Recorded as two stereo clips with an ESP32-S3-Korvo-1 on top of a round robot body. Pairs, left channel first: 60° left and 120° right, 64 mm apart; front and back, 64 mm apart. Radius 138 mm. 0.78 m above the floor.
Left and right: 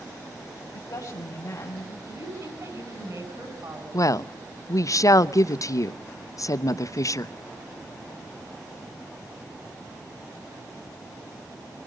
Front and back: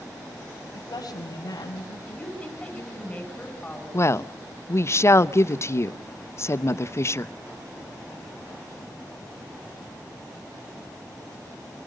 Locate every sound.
0.7 s a woman speaking: 30° left, 4.5 m; by 2.0 s 20° left, 4.5 m
2.1 s a woman speaking: 70° right, 8 m
3.9 s a woman speaking: 40° left, 0.9 m